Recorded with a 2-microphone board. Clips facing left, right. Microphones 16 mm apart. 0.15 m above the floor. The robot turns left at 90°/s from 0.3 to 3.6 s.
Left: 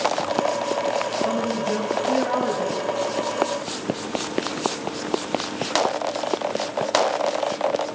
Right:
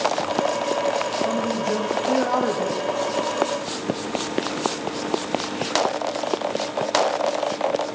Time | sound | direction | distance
1.2 | a man speaking | 15° left | 6.5 m